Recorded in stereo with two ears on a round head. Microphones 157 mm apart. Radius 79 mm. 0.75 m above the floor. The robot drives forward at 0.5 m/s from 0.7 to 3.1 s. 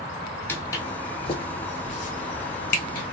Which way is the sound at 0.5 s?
10° left (ahead or behind).